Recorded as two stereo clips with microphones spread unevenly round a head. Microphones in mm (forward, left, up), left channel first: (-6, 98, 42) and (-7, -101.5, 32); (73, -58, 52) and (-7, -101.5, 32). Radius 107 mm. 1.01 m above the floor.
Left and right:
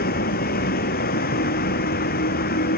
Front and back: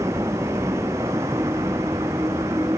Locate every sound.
0.0 s a vehicle: 135° left